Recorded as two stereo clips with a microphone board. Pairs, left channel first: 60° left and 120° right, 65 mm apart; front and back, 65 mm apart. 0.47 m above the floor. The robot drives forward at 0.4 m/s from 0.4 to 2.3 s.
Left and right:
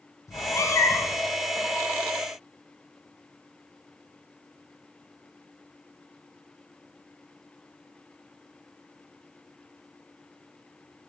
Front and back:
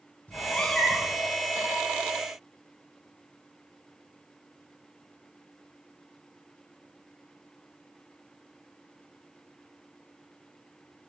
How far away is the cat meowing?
About 0.6 m.